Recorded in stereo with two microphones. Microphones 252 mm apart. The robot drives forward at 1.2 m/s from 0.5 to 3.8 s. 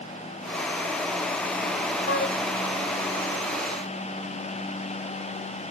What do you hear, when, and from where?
2.1 s a flute: 55° left (ahead or behind), 2 m; by 2.4 s 45° left (ahead or behind), 2.5 m